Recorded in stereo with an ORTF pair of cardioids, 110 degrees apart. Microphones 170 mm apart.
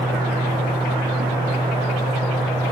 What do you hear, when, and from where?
0.0 s a fan: 30° right, 2.5 m